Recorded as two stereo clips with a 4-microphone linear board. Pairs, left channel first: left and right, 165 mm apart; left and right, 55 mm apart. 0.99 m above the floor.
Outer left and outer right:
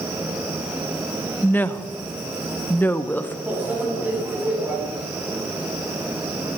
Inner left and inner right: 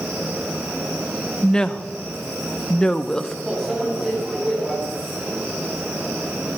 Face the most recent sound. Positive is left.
turn(degrees=-10)  # may be behind; listen again after turning